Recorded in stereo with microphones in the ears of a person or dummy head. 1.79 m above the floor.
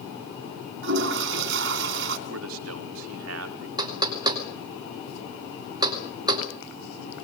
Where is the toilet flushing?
65° right (ahead or behind), 3.5 m.